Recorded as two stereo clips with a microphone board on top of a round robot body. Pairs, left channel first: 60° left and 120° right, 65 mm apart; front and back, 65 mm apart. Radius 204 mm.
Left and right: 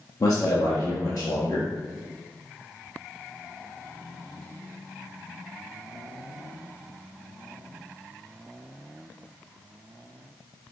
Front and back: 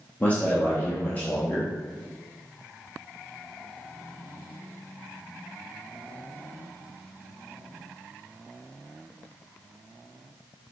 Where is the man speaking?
60° left, 1.0 m.